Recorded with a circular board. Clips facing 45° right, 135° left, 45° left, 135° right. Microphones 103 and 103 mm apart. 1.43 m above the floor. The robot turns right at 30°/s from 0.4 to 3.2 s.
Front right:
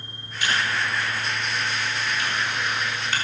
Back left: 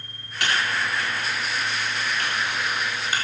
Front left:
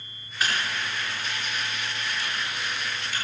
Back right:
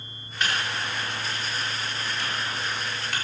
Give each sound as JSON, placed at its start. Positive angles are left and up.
{"t": 0.4, "sound": "typing on a keyboard", "azimuth_deg": 130, "distance_m": 4.0}